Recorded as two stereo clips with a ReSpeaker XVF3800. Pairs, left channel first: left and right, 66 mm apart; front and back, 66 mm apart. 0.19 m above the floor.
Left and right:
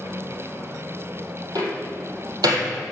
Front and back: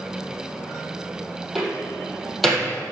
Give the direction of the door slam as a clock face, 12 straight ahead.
3 o'clock.